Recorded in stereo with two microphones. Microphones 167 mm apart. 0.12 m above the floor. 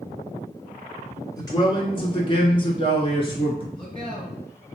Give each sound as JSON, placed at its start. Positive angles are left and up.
{"t": 1.4, "sound": "a man speaking", "side_deg": 25, "distance_m": 1.3}
{"t": 3.7, "sound": "a man speaking", "side_deg": 30, "distance_m": 1.6}